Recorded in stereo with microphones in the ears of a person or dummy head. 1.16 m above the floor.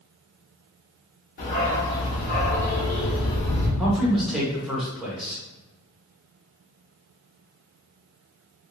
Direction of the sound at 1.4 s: 50° left (ahead or behind).